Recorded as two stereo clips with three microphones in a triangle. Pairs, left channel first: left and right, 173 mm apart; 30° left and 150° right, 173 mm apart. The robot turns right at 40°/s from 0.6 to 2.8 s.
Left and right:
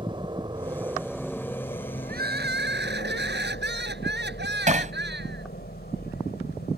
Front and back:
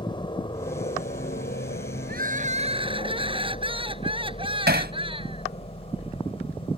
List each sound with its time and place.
0.0 s a helicopter: 30° right; by 6.8 s 85° left
2.1 s crying: 120° right; by 5.5 s 90° right
4.7 s hammering: 135° right